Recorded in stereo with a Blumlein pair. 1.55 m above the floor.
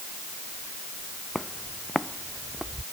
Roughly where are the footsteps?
Ahead.